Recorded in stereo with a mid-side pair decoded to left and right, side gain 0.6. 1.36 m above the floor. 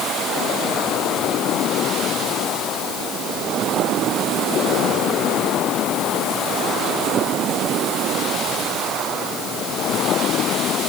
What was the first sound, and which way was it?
Only background noise.